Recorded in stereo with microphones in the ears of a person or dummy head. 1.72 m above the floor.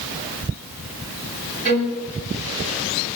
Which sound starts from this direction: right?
A violin, at 1.6 s.